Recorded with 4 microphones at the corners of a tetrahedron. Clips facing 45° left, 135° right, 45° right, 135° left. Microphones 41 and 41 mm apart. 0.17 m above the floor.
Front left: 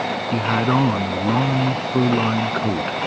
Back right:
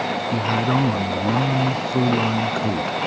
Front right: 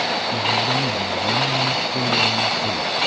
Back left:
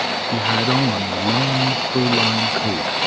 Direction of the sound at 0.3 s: 105° left.